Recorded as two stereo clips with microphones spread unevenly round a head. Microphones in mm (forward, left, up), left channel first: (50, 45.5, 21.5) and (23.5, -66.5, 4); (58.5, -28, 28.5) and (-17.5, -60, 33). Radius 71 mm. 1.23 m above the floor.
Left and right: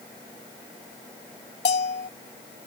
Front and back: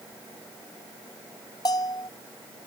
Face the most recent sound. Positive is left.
turn(degrees=85)